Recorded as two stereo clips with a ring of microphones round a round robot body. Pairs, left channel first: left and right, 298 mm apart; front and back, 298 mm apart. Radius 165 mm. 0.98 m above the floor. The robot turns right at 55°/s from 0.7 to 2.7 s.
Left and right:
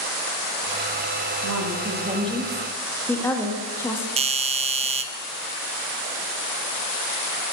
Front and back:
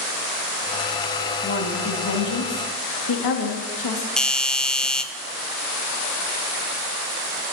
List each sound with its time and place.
1.4 s a woman speaking: 60° right, 1.9 m; by 4.1 s 10° left, 1.9 m
4.2 s a doorbell: 85° right, 0.6 m